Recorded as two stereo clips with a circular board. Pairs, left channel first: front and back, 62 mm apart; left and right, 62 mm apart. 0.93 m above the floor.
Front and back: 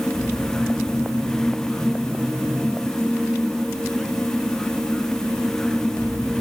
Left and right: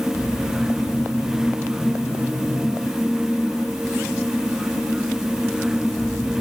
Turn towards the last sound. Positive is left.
No sound to turn to.